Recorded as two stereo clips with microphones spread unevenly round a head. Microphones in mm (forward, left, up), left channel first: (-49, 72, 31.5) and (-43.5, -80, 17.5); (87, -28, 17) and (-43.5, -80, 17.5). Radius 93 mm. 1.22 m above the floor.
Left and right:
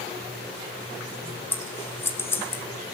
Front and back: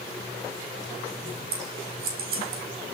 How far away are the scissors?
About 3 m.